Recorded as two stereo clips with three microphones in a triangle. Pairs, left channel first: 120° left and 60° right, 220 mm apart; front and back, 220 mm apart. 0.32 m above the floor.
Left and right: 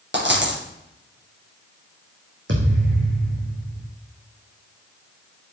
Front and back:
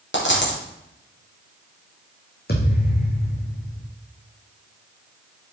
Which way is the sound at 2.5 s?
40° right.